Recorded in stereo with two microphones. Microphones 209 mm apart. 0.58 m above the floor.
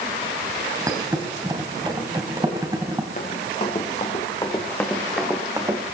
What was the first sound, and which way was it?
A thud, 20° right (ahead or behind).